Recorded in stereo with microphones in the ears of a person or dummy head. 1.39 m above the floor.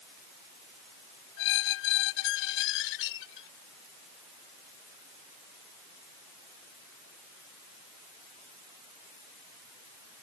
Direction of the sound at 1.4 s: 65° left (ahead or behind).